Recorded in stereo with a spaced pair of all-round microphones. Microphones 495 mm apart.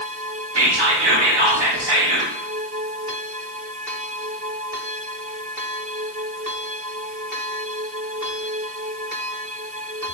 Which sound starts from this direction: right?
Whispering, at 0.6 s.